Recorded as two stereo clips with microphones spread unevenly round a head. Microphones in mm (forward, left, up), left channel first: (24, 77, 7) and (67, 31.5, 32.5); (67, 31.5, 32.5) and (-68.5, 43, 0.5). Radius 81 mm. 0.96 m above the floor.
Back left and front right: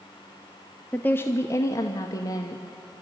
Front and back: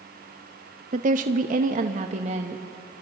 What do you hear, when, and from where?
0.9 s a woman speaking: 160° right, 0.7 m; by 2.9 s 140° left, 1.4 m